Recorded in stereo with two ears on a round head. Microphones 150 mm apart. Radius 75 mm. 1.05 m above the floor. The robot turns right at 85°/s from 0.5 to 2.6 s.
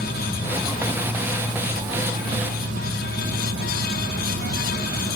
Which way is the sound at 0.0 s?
110° left.